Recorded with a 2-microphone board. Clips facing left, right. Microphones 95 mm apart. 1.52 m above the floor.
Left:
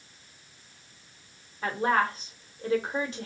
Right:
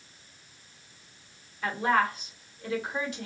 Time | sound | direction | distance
1.6 | a woman speaking | 35° left (ahead or behind) | 1.1 m